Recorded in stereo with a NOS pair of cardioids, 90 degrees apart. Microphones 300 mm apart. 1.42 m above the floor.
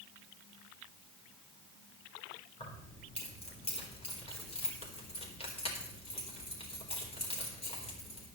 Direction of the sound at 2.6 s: 20° left.